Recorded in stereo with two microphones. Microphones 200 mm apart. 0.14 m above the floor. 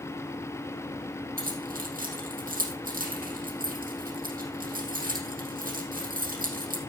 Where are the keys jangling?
45° right (ahead or behind), 4 m.